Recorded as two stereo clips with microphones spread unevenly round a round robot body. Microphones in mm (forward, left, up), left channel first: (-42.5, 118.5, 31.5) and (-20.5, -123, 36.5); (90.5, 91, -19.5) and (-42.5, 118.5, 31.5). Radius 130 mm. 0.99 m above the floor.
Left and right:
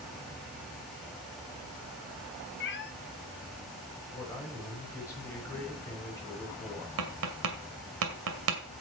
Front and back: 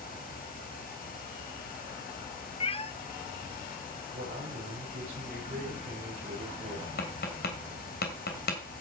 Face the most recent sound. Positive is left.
turn(degrees=-45)